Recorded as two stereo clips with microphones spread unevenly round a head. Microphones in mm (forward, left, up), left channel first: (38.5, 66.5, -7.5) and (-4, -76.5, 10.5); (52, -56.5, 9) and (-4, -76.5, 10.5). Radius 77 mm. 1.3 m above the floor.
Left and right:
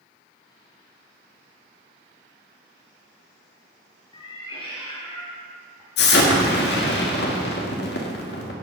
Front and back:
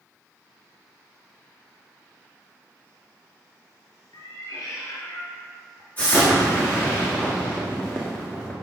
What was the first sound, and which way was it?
A cat meowing, 10° left.